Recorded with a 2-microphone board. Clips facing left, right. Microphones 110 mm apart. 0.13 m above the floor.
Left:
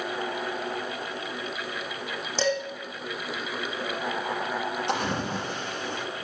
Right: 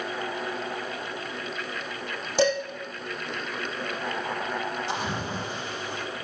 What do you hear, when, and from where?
2.4 s dishes clattering: 10° right (ahead or behind), 3.5 m
4.9 s a splash: 65° left (ahead or behind), 3.5 m